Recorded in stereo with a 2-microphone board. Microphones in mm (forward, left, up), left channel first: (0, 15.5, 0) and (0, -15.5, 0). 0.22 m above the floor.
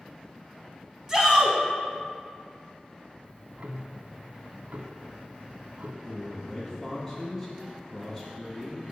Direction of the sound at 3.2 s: 50° right (ahead or behind).